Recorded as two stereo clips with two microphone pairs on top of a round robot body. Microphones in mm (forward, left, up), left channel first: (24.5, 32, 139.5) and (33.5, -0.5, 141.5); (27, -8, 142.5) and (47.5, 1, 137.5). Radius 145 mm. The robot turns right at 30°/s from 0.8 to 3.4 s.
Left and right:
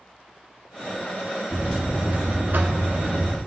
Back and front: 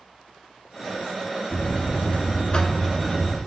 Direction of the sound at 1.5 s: 140° right.